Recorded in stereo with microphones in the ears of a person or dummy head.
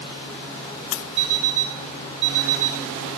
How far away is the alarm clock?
About 3.5 m.